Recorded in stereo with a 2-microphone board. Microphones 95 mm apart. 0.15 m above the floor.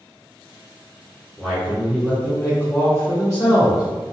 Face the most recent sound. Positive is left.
turn(degrees=45)  # may be behind; listen again after turning